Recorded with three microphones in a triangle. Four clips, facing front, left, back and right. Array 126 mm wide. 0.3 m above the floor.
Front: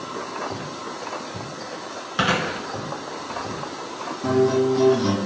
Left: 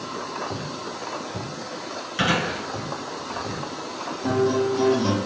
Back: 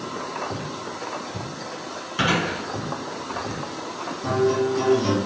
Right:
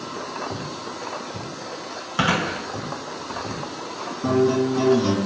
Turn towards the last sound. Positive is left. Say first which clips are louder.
# right 2 dB, front 2 dB
turn(degrees=-70)